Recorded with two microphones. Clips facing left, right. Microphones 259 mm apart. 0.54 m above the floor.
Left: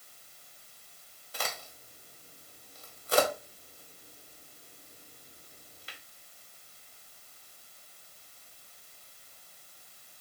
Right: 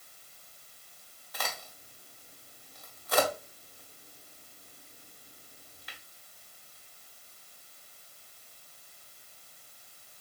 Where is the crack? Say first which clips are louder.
Left 1 dB; 30° left (ahead or behind), 1.4 m.